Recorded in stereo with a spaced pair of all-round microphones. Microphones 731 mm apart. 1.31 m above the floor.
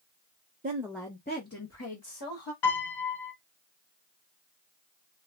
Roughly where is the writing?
No writing in this recording.